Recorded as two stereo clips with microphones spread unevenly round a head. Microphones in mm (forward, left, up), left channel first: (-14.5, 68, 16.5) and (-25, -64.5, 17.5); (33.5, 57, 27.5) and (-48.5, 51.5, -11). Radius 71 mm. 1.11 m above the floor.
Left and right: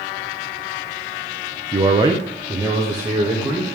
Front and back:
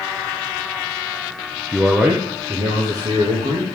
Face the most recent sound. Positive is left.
turn(degrees=-165)